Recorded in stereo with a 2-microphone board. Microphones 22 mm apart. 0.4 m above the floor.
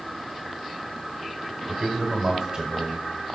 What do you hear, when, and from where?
1.7 s a man speaking: 15° right (ahead or behind), 2.0 m; by 3.2 s 40° right (ahead or behind), 1.7 m